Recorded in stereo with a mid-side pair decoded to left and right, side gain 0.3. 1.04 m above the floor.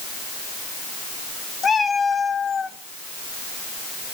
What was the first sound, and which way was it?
A cat meowing, 55° left.